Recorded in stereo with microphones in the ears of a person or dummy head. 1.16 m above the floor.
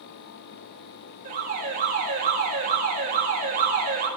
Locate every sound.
1.2 s an alarm: 45° right (ahead or behind), 3 m